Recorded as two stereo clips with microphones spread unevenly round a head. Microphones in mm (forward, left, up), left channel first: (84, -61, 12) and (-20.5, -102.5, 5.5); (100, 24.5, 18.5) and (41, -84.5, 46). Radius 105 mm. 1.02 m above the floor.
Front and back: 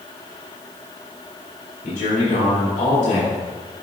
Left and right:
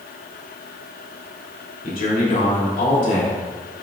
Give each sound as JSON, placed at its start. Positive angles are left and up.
{"t": 1.8, "sound": "a man speaking", "azimuth_deg": 60, "distance_m": 3.5}